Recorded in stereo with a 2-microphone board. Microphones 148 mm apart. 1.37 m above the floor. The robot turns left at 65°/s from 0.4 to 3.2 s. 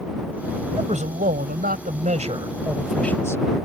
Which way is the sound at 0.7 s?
35° right.